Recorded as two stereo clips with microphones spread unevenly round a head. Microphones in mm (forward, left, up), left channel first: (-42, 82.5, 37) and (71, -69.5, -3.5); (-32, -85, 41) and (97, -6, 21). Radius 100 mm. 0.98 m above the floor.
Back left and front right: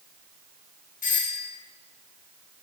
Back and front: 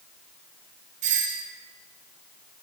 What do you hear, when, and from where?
1.0 s a doorbell: 75° left, 4 m